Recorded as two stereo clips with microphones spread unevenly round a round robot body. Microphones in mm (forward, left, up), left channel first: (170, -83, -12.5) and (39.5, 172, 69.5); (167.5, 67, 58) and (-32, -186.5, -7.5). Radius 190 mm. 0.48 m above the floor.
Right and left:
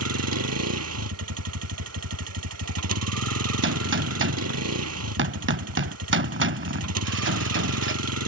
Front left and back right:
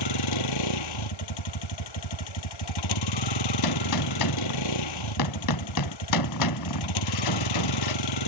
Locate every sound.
0.0 s a vehicle: 85° left
3.6 s a gunshot: 75° left